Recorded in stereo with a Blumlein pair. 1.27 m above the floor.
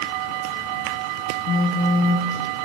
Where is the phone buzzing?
30° left, 0.9 m.